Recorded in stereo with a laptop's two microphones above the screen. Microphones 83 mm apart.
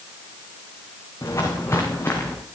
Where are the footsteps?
45° left (ahead or behind), 4 m; by 2.4 s 30° left (ahead or behind), 4.5 m.